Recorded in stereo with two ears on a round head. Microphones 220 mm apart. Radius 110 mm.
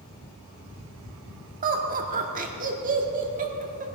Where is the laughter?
35° right (ahead or behind), 1.6 m.